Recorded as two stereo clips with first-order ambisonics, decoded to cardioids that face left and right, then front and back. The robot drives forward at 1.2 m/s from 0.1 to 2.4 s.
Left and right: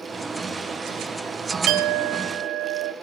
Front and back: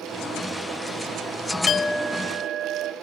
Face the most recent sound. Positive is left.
turn(degrees=-135)